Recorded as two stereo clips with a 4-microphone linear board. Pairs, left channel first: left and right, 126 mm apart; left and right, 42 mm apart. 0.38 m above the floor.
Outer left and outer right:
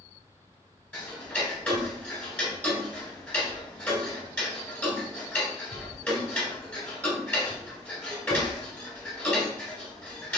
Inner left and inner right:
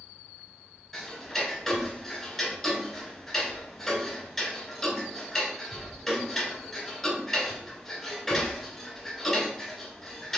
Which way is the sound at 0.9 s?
15° left (ahead or behind).